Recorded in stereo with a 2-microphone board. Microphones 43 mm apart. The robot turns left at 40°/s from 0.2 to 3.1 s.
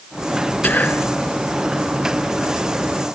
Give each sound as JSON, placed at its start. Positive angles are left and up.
{"t": 0.6, "sound": "whispering", "side_deg": 40, "distance_m": 2.0}